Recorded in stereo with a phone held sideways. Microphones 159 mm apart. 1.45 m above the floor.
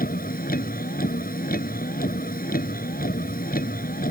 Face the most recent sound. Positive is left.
turn(degrees=65)  # may be behind; listen again after turning